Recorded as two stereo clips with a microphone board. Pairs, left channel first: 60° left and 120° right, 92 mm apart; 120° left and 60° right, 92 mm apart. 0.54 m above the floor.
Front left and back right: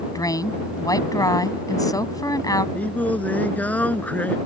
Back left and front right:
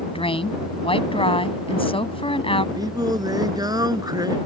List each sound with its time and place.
0.1 s a woman speaking: 110° left
2.8 s singing: 15° right